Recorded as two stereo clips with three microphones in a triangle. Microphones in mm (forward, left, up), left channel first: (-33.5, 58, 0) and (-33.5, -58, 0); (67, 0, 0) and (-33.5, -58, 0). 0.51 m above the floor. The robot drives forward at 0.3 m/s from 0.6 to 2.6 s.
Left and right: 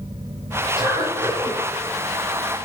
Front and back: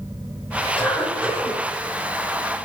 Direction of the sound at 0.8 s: 45° right.